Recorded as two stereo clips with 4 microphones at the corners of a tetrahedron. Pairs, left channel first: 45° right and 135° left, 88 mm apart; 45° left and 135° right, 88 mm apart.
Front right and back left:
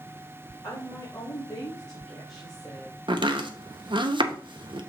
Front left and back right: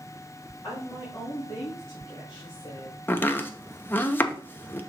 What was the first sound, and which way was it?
A woman speaking, 15° right.